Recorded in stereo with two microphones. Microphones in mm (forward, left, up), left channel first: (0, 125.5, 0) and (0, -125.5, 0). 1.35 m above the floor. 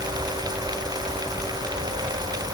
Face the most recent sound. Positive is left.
No sound to turn to.